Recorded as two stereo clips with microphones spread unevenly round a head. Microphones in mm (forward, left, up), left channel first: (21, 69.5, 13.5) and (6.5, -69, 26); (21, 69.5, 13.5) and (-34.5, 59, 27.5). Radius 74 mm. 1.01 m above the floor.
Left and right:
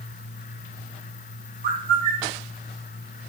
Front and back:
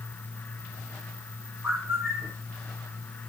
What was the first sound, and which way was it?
A bird, 95° right.